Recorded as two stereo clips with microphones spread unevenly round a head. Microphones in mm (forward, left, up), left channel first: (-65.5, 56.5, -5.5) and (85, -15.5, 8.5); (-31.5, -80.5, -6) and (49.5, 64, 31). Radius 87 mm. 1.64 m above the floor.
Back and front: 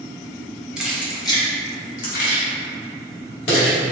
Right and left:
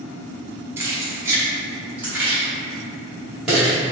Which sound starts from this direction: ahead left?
Keys jangling, at 0.8 s.